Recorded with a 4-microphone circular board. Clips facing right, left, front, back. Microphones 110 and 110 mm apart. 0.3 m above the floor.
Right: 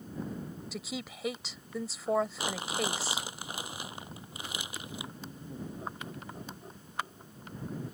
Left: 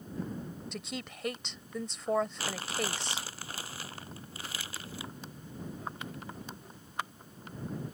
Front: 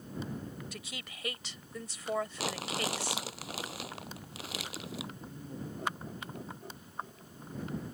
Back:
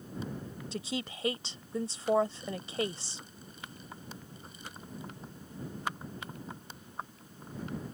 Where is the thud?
No thud in this recording.